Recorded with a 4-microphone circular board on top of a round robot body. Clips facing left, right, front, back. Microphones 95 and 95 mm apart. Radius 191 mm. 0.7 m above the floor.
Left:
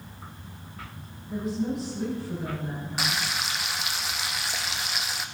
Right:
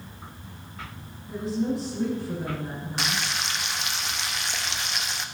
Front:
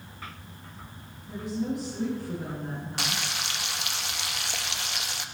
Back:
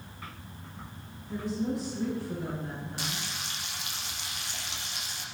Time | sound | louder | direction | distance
1.3 | a woman speaking | right 2 dB, front 1 dB | 30° right | 7 m
3.0 | frying | right 1 dB, front 5 dB | 5° left | 1.0 m